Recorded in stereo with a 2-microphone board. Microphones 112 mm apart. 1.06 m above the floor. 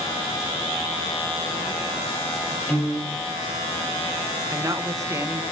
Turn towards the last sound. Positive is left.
turn(degrees=-30)  # may be behind; listen again after turning